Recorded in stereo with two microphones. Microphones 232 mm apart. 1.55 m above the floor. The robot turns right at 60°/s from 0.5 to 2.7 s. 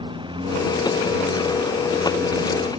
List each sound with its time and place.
0.0 s a lawn mower: 20° right (ahead or behind); by 2.8 s 25° right (ahead or behind)